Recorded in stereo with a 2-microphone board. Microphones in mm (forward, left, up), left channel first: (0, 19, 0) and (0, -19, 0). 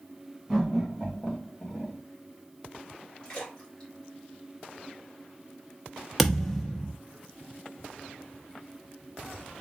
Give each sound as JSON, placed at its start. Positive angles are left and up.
{"t": 0.5, "sound": "laughter", "side_deg": 10, "distance_m": 2.0}
{"t": 3.2, "sound": "a splash", "side_deg": 25, "distance_m": 2.5}
{"t": 6.2, "sound": "a thud", "side_deg": 5, "distance_m": 0.8}